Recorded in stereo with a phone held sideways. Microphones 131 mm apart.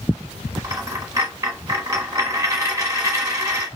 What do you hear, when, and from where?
0.6 s a dropped coin: 25° right (ahead or behind), 1.0 m